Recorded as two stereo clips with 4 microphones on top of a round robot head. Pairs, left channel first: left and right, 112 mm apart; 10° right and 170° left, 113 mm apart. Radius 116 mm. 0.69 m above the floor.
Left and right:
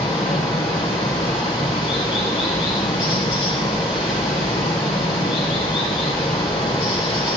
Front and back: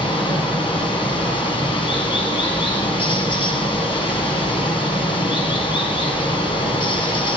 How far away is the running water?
About 1.6 m.